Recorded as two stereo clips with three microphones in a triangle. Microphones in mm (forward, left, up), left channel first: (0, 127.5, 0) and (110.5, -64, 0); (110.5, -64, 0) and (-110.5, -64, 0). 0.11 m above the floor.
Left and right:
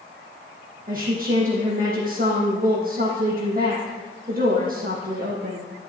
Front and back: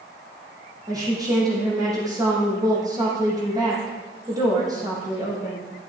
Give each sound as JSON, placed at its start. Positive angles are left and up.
{"t": 0.9, "sound": "a woman speaking", "azimuth_deg": -105, "distance_m": 5.0}